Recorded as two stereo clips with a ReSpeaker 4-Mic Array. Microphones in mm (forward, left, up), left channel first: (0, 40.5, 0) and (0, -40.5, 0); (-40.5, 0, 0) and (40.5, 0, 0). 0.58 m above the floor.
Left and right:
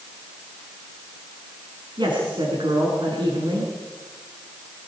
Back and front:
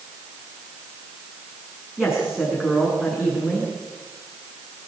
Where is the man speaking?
85° right, 7.5 m.